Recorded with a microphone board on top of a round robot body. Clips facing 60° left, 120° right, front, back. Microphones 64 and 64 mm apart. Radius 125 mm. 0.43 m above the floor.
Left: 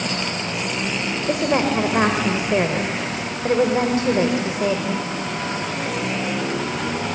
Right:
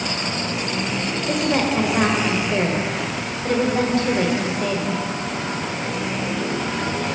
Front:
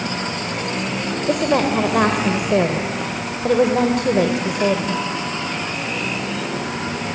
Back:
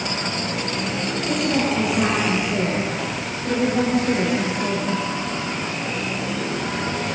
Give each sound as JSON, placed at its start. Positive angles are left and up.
{"t": 1.3, "sound": "a woman speaking", "azimuth_deg": -10, "distance_m": 2.5}